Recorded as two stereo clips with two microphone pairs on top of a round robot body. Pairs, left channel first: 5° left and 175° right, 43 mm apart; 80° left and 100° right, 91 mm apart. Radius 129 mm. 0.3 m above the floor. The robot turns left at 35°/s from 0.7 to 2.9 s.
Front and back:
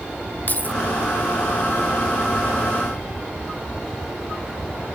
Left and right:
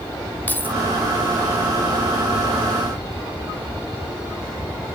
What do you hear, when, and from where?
0.5 s keys jangling: 10° left, 1.4 m